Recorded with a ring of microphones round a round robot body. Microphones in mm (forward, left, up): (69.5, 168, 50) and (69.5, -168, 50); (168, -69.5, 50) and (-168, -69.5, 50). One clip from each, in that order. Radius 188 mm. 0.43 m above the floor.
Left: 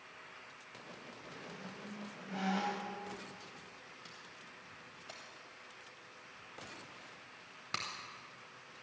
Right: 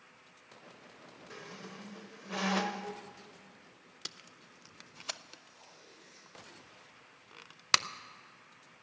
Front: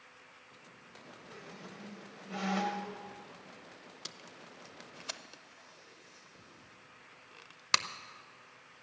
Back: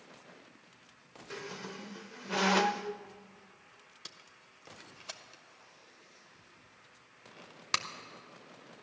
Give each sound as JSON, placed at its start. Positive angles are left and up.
{"t": 1.3, "sound": "a squeak", "azimuth_deg": -135, "distance_m": 0.5}
{"t": 4.0, "sound": "tape being pulled", "azimuth_deg": -85, "distance_m": 0.6}